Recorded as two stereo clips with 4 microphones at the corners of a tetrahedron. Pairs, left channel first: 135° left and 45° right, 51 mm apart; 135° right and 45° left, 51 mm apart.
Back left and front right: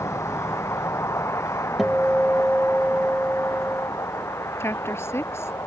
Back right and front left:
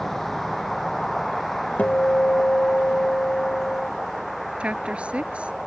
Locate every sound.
0.0 s a vehicle: 140° left; by 5.7 s 135° left
1.8 s a guitar: 125° right
4.6 s a woman speaking: 110° left